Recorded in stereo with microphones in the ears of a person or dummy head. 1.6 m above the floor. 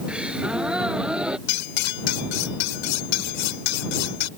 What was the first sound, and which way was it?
A gasp, 10° right (ahead or behind).